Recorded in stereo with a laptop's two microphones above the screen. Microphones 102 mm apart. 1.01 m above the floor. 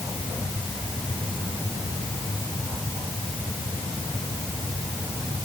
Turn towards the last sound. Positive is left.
No sound to turn to.